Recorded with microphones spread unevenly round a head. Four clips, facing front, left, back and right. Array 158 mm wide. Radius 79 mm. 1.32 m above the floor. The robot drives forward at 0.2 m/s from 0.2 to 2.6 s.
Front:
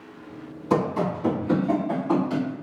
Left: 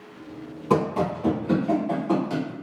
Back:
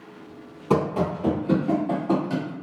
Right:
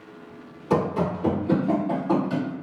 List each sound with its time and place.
0.7 s running footsteps: 150° left, 1.9 m; by 2.5 s 175° left, 1.6 m